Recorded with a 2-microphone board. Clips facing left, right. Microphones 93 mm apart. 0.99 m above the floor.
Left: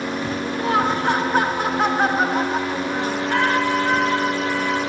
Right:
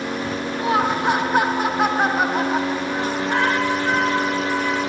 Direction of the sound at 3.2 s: 20° right (ahead or behind).